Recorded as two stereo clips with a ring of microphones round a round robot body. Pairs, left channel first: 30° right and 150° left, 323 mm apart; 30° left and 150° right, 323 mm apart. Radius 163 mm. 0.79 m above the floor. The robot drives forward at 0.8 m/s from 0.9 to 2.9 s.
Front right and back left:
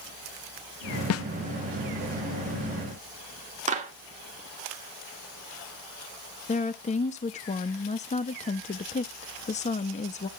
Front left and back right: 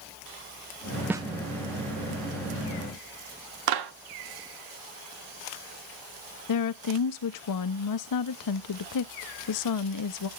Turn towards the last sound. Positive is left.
turn(degrees=35)